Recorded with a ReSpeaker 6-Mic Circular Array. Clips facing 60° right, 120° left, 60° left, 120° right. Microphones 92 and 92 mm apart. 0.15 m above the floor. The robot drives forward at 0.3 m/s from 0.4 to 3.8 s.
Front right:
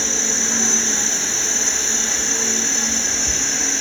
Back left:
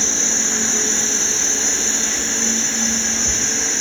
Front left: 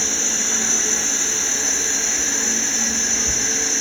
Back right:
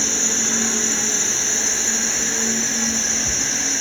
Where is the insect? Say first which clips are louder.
Even, back right 2 dB; straight behind, 0.9 m.